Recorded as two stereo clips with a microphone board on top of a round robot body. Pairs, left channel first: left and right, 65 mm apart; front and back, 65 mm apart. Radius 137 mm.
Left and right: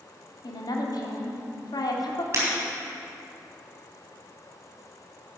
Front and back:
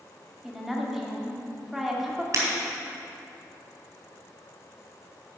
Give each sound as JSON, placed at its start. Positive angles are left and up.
{"t": 0.4, "sound": "a woman speaking", "azimuth_deg": 95, "distance_m": 1.7}
{"t": 2.3, "sound": "breaking glass", "azimuth_deg": -140, "distance_m": 3.5}